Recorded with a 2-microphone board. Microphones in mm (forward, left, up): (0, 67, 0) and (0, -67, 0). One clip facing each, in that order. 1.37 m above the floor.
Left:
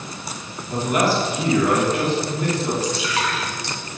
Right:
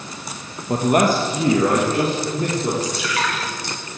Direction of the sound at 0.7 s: 55° right (ahead or behind).